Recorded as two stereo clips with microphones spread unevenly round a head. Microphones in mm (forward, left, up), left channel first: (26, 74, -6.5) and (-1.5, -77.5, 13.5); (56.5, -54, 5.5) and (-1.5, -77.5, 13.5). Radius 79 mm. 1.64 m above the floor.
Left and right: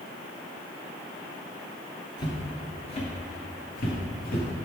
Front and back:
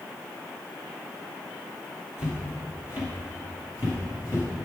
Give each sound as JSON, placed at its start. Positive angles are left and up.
{"t": 2.2, "sound": "footsteps", "azimuth_deg": 25, "distance_m": 1.9}